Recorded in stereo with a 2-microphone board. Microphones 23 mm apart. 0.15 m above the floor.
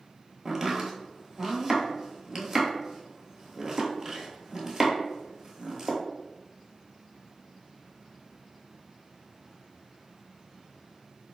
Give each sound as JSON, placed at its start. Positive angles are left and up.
{"t": 0.5, "sound": "chopping", "side_deg": -10, "distance_m": 0.9}